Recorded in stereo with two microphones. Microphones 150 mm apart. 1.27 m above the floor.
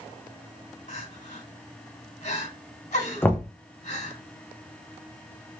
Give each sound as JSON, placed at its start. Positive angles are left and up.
{"t": 0.9, "sound": "crying", "side_deg": 55, "distance_m": 2.0}
{"t": 3.2, "sound": "knocking", "side_deg": 15, "distance_m": 0.6}